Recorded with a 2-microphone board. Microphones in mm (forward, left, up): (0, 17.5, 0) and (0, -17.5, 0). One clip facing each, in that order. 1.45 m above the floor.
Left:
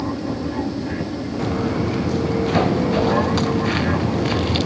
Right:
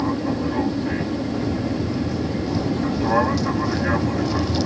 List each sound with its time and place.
0.0 s an aircraft: 10° right (ahead or behind)
1.4 s footsteps: 60° left (ahead or behind); by 4.7 s 50° left (ahead or behind)